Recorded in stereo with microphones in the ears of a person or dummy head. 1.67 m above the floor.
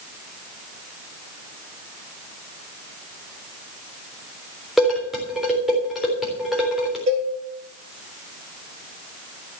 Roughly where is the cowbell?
Right.